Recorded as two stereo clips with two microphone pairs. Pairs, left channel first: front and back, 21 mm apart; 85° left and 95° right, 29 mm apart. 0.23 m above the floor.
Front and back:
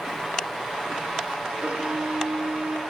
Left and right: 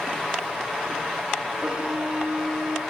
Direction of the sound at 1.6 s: 160° right.